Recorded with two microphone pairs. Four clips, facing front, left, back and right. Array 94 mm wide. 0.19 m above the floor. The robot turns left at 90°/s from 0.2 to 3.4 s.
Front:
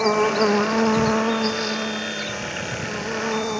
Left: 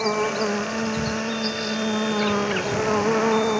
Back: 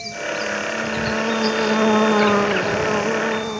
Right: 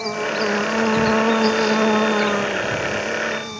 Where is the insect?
15° left; by 3.6 s 85° left.